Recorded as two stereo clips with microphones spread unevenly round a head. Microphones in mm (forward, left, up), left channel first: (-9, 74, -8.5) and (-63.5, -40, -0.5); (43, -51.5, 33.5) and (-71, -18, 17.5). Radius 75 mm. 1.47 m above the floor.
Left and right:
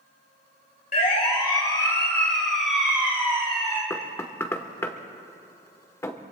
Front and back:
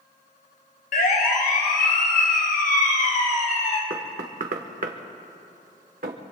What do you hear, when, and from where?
0.9 s a siren: 20° left, 2 m; by 3.8 s 40° right, 3 m
3.9 s knocking: 135° left, 1.2 m